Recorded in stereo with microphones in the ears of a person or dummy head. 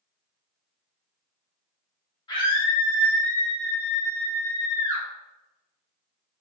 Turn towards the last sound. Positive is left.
turn(degrees=-10)  # may be behind; listen again after turning